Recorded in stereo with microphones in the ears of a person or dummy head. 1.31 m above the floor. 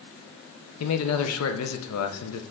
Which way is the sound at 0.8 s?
80° left.